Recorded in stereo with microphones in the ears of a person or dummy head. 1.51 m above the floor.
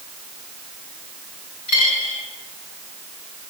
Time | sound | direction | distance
1.7 | a dropped coin | 65° left (ahead or behind) | 3.5 m